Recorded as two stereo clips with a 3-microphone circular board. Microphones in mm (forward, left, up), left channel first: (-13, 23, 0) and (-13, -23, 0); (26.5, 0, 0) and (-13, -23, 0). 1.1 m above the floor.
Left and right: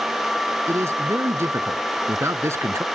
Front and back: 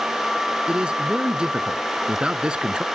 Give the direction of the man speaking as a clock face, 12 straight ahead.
3 o'clock.